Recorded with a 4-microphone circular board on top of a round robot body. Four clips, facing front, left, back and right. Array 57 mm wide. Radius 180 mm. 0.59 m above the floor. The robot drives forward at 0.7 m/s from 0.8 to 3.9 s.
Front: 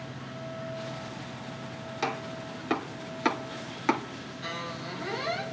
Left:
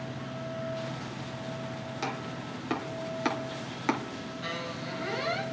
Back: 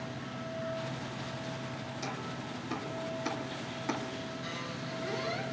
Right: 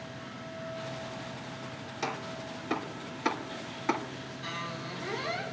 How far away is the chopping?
About 3 m.